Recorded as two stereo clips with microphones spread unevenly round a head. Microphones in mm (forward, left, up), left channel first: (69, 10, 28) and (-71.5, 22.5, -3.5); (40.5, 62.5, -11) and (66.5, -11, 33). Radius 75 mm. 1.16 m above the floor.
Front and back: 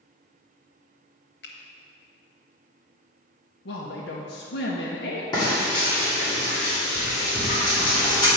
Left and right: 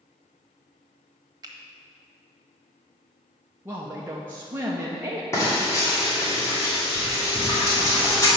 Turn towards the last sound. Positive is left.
turn(degrees=60)